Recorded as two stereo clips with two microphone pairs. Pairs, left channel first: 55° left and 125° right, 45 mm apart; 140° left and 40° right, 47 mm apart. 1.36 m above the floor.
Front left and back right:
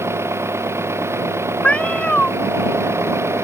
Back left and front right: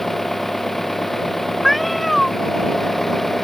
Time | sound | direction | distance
0.0 | an engine running | 135° right | ?
1.6 | a cat meowing | 55° left | ?